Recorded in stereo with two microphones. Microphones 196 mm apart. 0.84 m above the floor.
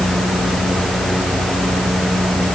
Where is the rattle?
I don't hear a rattle.